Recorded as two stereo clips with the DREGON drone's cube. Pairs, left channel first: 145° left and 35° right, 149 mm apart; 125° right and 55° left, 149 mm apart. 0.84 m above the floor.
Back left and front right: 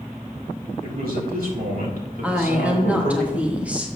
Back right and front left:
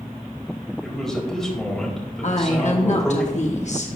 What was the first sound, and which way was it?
A man speaking, 35° right.